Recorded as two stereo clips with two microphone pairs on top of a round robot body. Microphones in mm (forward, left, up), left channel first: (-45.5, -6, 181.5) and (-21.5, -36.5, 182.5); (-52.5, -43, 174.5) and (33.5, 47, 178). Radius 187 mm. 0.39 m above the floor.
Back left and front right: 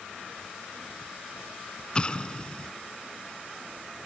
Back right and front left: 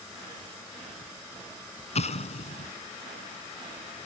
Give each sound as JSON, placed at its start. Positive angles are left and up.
{"t": 1.9, "sound": "an explosion", "azimuth_deg": -165}